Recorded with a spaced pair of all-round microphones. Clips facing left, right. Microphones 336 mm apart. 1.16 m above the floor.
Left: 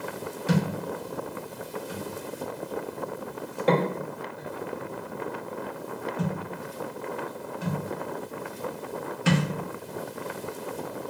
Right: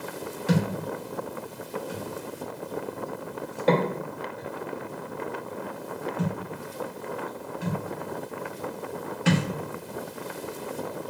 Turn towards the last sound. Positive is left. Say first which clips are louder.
# right 1 dB
turn(degrees=0)  # may be behind; listen again after turning